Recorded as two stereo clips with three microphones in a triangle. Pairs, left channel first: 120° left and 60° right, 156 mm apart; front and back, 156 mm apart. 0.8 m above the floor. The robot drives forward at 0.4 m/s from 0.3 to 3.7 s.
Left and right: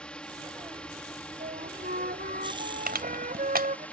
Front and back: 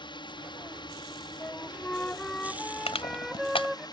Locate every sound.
0.0 s a drone: 40° left; by 3.9 s 45° left
1.4 s a flute: 75° right; by 3.9 s 90° right
2.9 s crushing: 50° right; by 3.9 s 55° right